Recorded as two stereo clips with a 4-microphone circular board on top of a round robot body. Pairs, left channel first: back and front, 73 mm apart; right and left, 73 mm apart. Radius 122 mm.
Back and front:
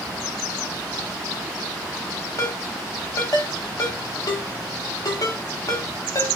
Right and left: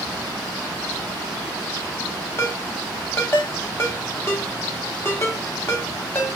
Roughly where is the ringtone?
Behind right.